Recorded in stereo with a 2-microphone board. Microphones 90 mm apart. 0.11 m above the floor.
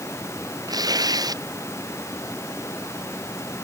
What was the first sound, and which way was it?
Tearing paper, 45° right (ahead or behind).